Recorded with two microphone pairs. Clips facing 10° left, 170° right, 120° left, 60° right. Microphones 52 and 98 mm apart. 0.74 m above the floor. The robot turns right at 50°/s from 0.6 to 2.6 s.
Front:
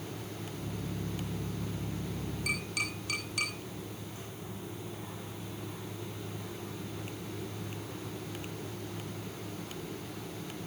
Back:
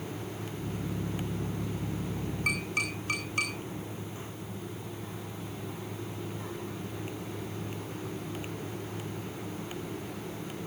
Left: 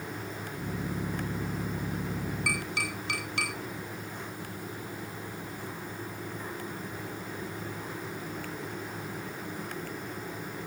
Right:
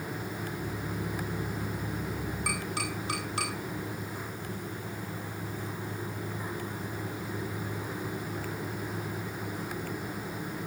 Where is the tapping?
125° right, 8.5 m; by 3.5 s 115° right, 8.5 m.